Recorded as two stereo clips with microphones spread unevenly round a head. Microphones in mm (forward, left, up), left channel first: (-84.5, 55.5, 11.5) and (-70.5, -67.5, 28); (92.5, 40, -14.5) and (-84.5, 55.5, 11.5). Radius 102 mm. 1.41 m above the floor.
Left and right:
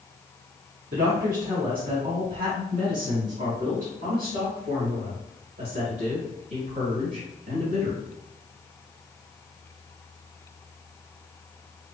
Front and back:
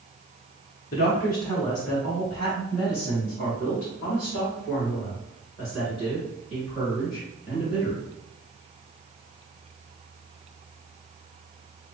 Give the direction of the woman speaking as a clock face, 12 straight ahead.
2 o'clock.